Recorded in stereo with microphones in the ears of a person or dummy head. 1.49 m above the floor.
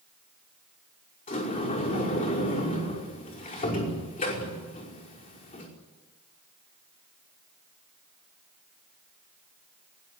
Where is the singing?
I don't hear singing.